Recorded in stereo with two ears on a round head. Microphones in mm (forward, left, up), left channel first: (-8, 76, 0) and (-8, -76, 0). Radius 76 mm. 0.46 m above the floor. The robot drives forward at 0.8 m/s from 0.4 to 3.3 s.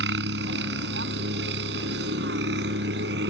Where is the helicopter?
75° right (ahead or behind).